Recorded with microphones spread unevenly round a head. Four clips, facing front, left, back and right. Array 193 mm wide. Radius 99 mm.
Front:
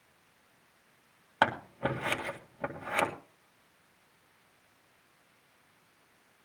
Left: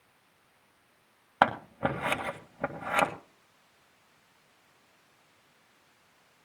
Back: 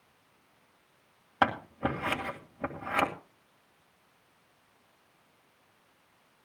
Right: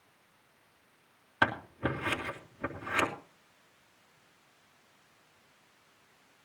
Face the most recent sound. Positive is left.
turn(degrees=100)